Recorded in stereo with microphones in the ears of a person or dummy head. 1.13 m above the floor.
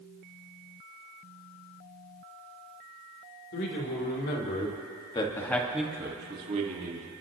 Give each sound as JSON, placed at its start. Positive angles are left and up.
{"t": 3.5, "sound": "a man speaking", "side_deg": 55, "distance_m": 3.0}